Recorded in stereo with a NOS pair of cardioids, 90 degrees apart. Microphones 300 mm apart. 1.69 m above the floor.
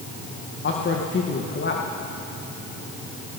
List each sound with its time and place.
0.6 s a man speaking: 40° left, 2 m